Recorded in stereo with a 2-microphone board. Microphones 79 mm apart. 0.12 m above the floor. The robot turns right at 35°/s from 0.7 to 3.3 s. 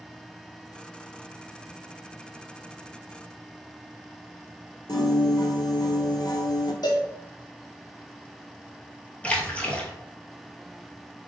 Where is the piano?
60° left (ahead or behind), 0.6 m.